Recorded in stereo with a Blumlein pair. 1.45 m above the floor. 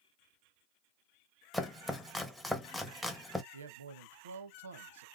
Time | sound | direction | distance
1.5 | chopping | 5° left | 0.6 m
3.5 | a man speaking | 65° right | 0.7 m